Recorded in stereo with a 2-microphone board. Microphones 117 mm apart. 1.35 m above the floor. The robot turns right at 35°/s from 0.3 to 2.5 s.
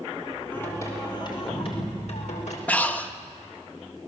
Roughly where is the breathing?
Centre.